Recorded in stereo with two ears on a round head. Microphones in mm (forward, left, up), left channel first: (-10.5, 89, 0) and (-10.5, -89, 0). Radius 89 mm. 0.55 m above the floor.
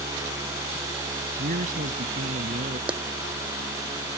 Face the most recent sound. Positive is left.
turn(degrees=-5)  # may be behind; listen again after turning